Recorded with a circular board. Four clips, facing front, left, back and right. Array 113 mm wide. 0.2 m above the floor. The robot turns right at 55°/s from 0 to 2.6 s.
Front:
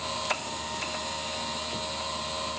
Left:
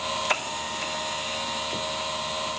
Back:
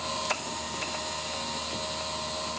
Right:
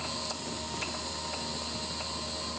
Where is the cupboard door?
No cupboard door in this recording.